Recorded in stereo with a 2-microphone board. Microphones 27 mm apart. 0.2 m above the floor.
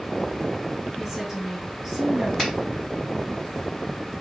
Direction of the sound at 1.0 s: 10° right (ahead or behind).